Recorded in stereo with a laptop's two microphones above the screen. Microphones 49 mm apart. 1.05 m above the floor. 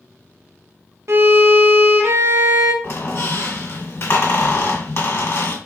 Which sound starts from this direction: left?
A squeak, at 2.8 s.